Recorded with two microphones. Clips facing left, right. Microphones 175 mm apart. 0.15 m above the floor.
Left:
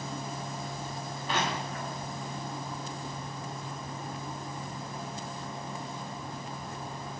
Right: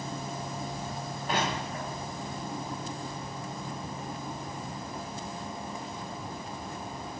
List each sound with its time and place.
1.3 s crushing: 50° right (ahead or behind), 4.5 m